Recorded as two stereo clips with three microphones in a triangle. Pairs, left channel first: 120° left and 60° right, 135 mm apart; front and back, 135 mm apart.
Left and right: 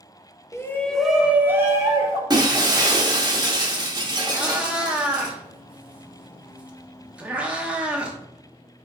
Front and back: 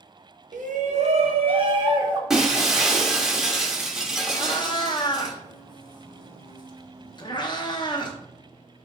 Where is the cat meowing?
15° left, 0.6 m.